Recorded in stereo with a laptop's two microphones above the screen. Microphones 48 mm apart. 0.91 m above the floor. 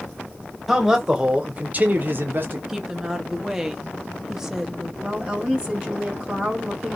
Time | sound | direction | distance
0.7 | a man speaking | 5° right (ahead or behind) | 0.8 m
2.7 | a woman speaking | 10° right (ahead or behind) | 0.8 m
5.0 | a woman speaking | 20° right (ahead or behind) | 1.4 m